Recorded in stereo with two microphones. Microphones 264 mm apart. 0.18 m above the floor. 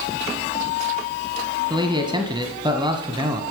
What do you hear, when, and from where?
1.7 s a man speaking: 15° right (ahead or behind), 1.1 m